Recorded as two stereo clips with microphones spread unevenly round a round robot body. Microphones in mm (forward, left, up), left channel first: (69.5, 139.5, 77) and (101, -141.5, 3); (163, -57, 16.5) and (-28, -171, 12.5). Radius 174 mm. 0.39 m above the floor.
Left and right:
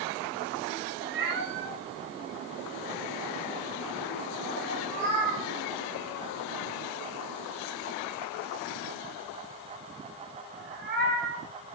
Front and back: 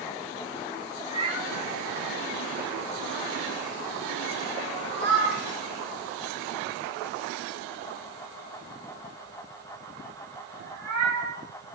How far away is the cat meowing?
About 6 m.